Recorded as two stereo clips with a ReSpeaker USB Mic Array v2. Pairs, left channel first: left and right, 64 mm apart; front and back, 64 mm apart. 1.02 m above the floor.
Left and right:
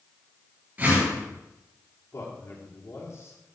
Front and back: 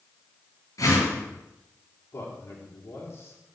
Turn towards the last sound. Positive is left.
turn(degrees=45)